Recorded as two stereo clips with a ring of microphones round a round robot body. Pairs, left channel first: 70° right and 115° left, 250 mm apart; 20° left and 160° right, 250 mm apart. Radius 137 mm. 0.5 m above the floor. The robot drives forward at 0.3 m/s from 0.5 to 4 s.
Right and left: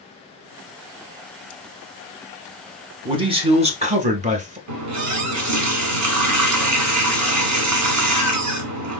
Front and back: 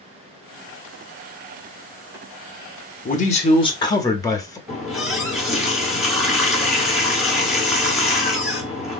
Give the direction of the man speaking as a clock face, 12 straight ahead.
10 o'clock.